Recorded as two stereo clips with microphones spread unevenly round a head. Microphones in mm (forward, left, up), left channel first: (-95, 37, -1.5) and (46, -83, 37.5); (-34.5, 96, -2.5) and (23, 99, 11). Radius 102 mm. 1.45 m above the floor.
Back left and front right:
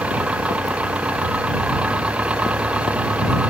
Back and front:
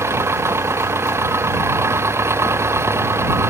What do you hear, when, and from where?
0.0 s an engine running: 45° left